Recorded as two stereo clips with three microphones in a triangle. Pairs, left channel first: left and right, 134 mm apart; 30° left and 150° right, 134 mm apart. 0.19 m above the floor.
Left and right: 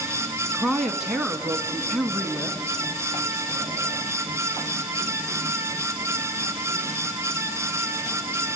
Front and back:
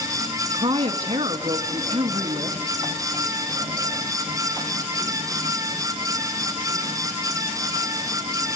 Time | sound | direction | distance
0.5 | a woman speaking | 175° right | 1.3 m